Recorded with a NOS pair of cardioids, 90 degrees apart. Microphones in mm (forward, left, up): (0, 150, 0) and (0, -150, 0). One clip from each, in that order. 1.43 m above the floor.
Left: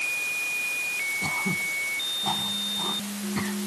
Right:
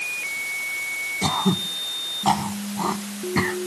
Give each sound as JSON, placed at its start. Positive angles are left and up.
{"t": 1.2, "sound": "throat clearing", "azimuth_deg": -65}